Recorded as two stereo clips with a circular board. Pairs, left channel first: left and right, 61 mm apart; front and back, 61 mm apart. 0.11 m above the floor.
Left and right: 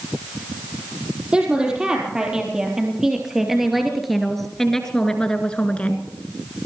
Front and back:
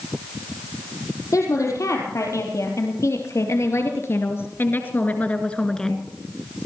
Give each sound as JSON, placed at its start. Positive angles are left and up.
{"t": 1.3, "sound": "a woman speaking", "azimuth_deg": -15, "distance_m": 4.5}